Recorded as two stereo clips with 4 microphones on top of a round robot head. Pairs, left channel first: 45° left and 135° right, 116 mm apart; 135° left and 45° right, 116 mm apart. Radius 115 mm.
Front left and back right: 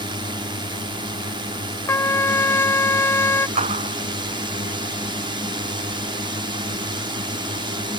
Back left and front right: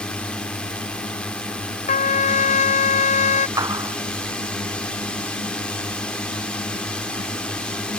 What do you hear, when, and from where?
0.0 s a drone: 145° right
1.9 s a trumpet: 115° left
3.6 s a clap: 105° right